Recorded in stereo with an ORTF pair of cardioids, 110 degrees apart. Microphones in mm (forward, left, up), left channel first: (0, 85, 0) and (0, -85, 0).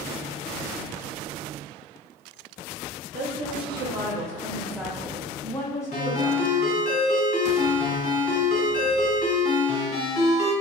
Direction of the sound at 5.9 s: 50° left.